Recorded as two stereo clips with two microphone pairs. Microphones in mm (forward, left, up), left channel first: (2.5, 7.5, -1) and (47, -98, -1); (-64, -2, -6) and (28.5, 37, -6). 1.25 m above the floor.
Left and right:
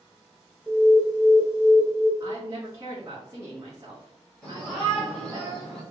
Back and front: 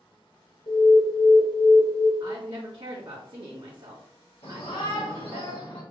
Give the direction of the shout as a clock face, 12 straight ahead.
5 o'clock.